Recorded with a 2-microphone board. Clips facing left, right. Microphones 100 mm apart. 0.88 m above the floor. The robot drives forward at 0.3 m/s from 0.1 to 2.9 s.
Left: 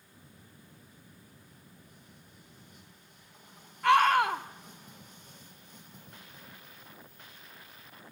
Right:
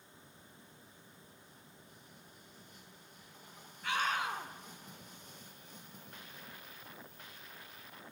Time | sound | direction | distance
3.8 | a scream | 80° left | 2.5 m